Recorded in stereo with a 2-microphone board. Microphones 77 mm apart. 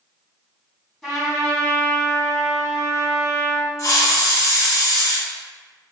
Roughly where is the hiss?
Left.